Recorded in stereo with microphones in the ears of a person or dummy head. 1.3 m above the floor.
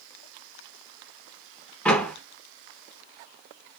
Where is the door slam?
10° left (ahead or behind), 0.7 m.